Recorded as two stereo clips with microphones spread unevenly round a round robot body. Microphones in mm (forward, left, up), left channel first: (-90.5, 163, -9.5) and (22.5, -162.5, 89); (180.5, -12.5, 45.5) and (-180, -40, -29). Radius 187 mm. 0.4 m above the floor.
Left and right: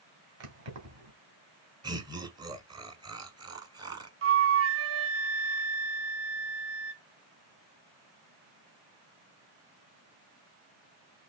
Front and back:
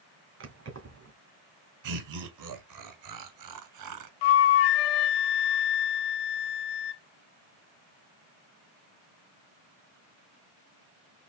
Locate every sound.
0.4 s keys jangling: 120° right, 2.5 m
1.8 s laughter: 155° right, 1.9 m
4.2 s a flute: 15° right, 0.7 m